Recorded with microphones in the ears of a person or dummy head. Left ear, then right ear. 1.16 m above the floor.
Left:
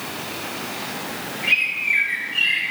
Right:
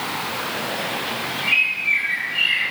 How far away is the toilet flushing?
No toilet flushing in this recording.